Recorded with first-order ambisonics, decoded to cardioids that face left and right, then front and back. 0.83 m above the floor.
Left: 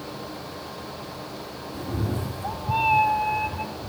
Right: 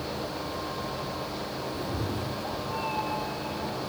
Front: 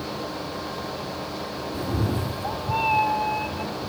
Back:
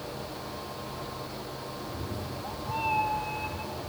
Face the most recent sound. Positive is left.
turn(degrees=75)